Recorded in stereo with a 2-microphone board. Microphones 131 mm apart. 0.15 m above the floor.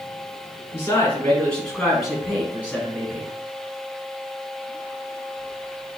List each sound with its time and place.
0.7 s a man speaking: 20° left (ahead or behind), 1.4 m; by 3.3 s 20° right (ahead or behind), 1.5 m